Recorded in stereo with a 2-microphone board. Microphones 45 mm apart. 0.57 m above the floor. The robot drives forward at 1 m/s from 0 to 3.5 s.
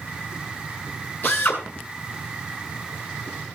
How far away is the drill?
About 7.5 m.